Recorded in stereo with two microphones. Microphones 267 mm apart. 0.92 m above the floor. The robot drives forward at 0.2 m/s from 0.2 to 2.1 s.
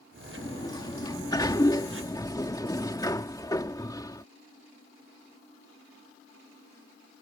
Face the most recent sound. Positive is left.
turn(degrees=15)  # may be behind; listen again after turning